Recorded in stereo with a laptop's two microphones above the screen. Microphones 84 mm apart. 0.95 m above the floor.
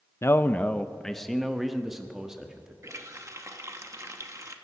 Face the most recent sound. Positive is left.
turn(degrees=-35)  # may be behind; listen again after turning